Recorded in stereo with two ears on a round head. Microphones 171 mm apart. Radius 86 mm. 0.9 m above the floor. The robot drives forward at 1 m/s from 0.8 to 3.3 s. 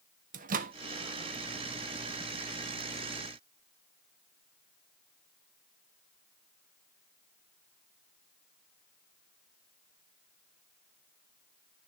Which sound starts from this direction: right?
A microwave, at 0.3 s.